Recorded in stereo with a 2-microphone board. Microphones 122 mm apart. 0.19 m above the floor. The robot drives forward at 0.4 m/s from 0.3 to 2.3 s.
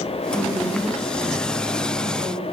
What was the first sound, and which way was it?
A woman speaking, 65° right (ahead or behind).